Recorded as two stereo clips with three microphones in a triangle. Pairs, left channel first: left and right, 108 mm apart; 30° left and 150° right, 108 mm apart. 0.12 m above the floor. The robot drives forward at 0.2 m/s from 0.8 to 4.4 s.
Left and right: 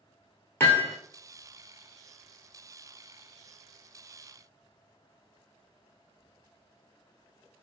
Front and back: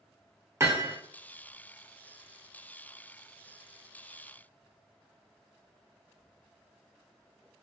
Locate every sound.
0.6 s hammering: 155° left, 0.9 m